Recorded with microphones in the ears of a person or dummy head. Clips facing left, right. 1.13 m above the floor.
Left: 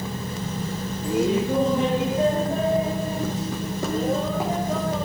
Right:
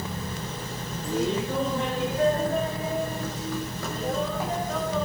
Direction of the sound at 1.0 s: 5° left (ahead or behind).